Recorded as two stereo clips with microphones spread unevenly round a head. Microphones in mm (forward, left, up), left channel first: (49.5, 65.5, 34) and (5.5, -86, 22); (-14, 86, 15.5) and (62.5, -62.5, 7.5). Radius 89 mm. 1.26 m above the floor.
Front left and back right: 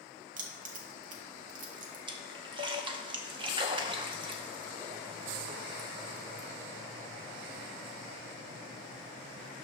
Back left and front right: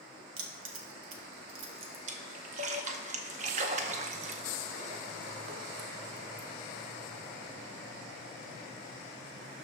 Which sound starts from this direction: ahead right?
A splash, at 2.1 s.